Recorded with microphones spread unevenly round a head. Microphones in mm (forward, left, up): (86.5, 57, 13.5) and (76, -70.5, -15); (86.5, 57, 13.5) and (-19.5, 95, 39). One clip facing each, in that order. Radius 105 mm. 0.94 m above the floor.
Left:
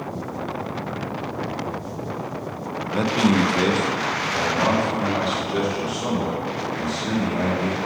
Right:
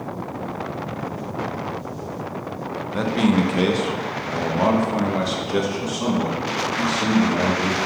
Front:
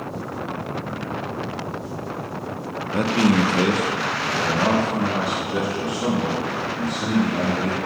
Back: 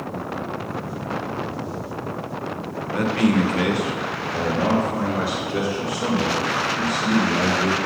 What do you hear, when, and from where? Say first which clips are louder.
2.9 s a man speaking: even, front 1 dB; 5° right, 1.0 m; by 7.8 s 95° right, 2.5 m